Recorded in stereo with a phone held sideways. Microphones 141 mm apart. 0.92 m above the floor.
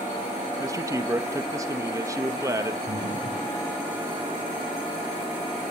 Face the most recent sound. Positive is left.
turn(degrees=-60)  # may be behind; listen again after turning